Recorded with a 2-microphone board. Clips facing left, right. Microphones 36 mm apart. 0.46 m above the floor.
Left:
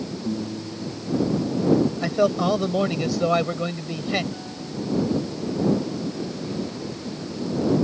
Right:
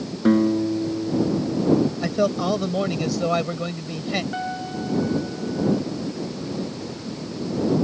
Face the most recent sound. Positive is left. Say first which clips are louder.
# right 5 dB
turn(degrees=-55)  # may be behind; listen again after turning